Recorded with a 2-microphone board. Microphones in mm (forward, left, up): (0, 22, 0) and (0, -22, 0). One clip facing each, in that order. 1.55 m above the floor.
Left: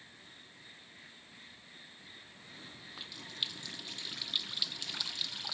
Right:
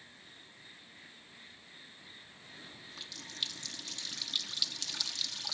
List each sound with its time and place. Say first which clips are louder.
2.7 s a running tap: left 1 dB; 15° left (ahead or behind), 0.7 m